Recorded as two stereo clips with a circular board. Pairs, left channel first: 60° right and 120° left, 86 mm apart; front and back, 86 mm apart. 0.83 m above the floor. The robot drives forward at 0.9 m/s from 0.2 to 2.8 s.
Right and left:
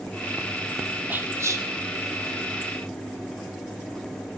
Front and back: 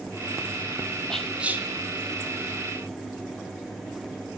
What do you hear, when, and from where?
1.1 s whispering: 70° left, 0.8 m; by 1.7 s 135° left, 0.8 m